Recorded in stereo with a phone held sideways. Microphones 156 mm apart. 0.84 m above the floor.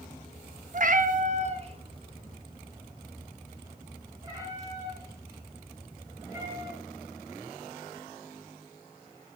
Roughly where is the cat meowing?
Right.